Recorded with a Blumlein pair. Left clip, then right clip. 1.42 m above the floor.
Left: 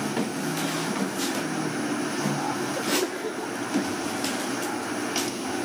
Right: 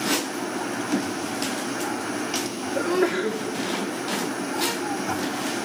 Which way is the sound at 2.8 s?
35° right.